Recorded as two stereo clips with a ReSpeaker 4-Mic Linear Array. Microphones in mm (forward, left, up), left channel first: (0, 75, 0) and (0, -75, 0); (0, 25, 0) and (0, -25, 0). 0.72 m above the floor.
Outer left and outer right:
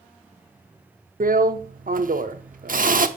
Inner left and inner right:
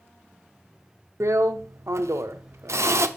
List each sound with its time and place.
1.2 s a drill: 65° right (ahead or behind), 0.7 m